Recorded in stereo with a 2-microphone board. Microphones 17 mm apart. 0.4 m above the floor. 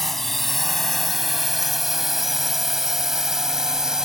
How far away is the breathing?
No breathing in this recording.